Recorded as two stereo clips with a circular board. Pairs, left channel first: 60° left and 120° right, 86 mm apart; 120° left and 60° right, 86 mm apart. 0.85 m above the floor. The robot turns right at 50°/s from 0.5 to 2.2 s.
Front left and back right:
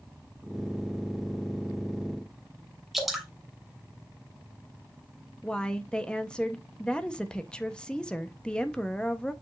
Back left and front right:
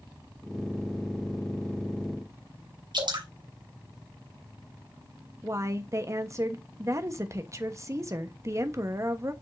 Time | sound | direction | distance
2.9 | dripping | 30° right | 3 m
5.4 | a woman speaking | 15° right | 1.0 m